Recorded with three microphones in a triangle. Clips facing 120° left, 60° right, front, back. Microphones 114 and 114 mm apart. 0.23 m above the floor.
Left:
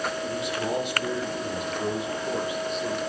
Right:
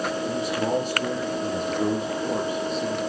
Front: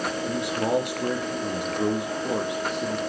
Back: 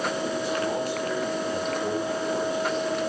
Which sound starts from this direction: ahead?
A man speaking, at 0.3 s.